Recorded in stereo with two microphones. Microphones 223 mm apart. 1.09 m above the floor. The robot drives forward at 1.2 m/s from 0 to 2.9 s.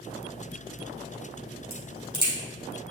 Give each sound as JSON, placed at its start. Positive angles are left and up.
{"t": 1.7, "sound": "a crack", "side_deg": 25, "distance_m": 3.0}